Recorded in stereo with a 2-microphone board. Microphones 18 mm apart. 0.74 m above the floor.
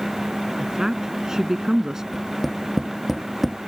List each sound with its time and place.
0.6 s a woman speaking: 30° right (ahead or behind); by 2.0 s 25° right (ahead or behind)
2.1 s tapping: centre (ahead or behind)